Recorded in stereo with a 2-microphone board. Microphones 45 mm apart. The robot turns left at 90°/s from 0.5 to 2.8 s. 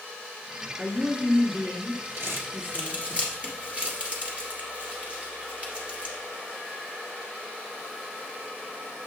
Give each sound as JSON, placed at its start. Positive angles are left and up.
{"t": 0.8, "sound": "a woman speaking", "azimuth_deg": 125, "distance_m": 1.8}
{"t": 2.2, "sound": "crumpling", "side_deg": -55, "distance_m": 2.5}